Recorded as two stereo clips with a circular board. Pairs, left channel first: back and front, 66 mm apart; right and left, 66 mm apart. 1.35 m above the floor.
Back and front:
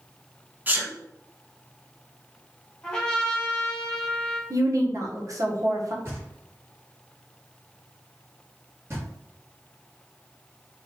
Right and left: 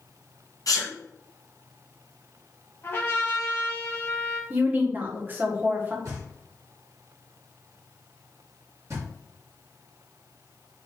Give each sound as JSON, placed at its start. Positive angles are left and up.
{"t": 0.7, "sound": "a sneeze", "azimuth_deg": -65, "distance_m": 1.3}
{"t": 2.8, "sound": "a trumpet", "azimuth_deg": -115, "distance_m": 1.4}
{"t": 4.5, "sound": "a woman speaking", "azimuth_deg": 30, "distance_m": 1.1}
{"t": 6.0, "sound": "knocking", "azimuth_deg": 50, "distance_m": 2.5}